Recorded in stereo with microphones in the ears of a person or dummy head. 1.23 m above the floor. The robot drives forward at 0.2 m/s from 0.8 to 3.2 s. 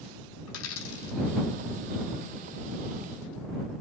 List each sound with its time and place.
0.5 s a dropped coin: 80° left, 3.5 m